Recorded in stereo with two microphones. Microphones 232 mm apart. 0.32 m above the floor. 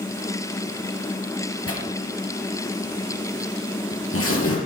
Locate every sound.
1.7 s tearing paper: 80° left, 4.5 m